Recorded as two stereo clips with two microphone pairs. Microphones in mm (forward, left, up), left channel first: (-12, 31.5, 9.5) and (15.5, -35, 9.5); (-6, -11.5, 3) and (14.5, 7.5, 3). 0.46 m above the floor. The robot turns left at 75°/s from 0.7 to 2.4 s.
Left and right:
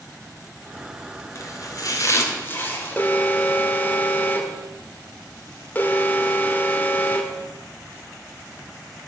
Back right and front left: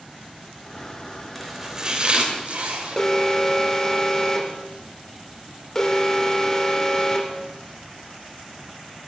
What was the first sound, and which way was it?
Chopping, 140° left.